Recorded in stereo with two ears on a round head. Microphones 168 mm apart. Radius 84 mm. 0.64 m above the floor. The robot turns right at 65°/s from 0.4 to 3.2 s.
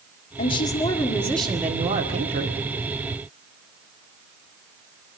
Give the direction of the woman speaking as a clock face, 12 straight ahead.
8 o'clock.